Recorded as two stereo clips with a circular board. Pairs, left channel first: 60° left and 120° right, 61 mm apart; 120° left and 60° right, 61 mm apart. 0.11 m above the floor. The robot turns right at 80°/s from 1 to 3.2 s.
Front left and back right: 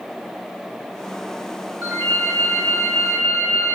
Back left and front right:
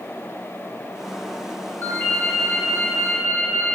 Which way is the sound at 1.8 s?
170° left.